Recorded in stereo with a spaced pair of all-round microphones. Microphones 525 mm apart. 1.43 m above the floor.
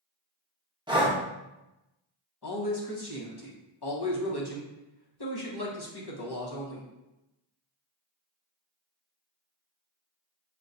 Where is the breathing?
10° right (ahead or behind), 0.7 m.